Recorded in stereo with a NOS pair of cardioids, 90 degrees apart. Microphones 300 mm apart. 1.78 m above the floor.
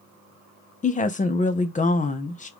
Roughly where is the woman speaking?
Ahead left.